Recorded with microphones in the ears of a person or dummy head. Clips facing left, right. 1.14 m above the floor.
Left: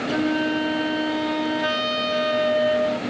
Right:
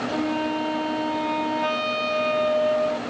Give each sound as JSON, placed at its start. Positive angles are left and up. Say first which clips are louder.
{"t": 0.1, "sound": "a flute", "louder": "left 4 dB", "side_deg": 15, "distance_m": 0.5}